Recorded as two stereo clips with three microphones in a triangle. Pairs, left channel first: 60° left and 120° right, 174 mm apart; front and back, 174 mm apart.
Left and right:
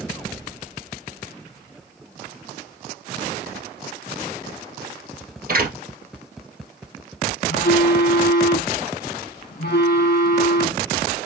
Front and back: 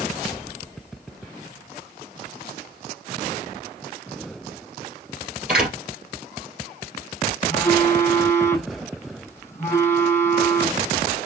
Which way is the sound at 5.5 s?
95° right.